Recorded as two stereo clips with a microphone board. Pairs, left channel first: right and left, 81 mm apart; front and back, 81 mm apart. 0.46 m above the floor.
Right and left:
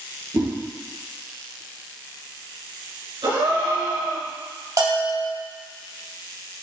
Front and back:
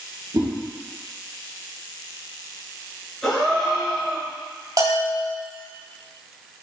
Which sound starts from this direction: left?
A gasp, at 3.2 s.